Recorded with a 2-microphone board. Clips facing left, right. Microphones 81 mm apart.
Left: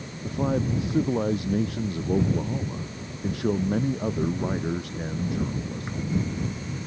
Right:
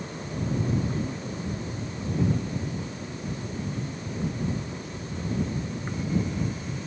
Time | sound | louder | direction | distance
0.2 | a man speaking | left 5 dB | 85° left | ?